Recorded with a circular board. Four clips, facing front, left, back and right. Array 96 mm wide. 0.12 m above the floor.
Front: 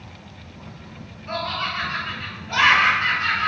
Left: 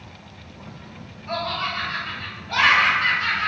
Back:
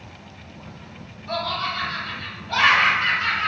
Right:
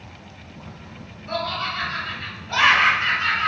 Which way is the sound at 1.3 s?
5° left.